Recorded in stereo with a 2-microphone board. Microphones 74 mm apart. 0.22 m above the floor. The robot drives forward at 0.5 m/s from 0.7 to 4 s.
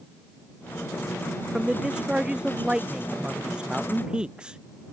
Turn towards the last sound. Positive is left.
turn(degrees=-10)  # may be behind; listen again after turning